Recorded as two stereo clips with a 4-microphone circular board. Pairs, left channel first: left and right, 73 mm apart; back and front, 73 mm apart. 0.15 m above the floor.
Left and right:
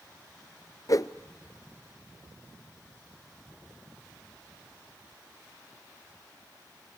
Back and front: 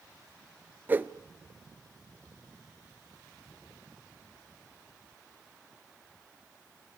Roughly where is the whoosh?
Ahead left.